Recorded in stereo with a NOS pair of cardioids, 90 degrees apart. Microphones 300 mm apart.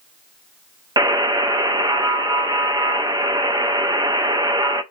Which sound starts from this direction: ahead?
A buzzer, at 1.0 s.